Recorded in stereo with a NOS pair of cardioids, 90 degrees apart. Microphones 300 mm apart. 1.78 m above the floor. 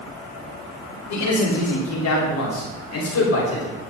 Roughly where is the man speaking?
Ahead left.